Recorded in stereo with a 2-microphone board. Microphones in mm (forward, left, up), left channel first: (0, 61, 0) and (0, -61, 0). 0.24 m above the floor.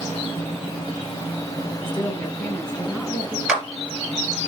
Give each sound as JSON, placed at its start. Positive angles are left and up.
{"t": 1.9, "sound": "a woman speaking", "side_deg": 20, "distance_m": 2.0}
{"t": 3.5, "sound": "a clap", "side_deg": -5, "distance_m": 4.0}